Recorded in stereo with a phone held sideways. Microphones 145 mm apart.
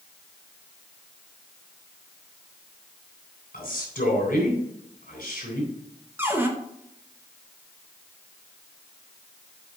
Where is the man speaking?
80° left, 3 m.